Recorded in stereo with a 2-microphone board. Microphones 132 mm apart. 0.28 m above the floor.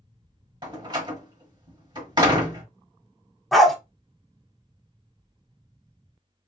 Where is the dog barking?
Centre (ahead or behind), 0.8 m.